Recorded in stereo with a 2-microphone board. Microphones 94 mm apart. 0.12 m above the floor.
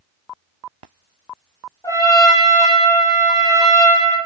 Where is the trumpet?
40° left (ahead or behind), 0.8 m.